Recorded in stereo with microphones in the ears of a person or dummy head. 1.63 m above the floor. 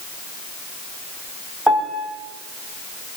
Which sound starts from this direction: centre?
A piano, at 1.7 s.